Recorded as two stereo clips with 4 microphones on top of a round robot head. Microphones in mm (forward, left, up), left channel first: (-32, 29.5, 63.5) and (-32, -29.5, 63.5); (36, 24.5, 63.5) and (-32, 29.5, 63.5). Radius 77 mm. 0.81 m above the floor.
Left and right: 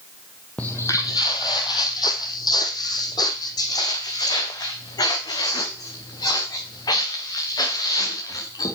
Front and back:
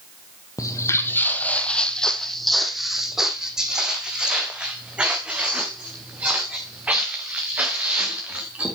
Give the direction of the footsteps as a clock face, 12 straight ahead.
12 o'clock.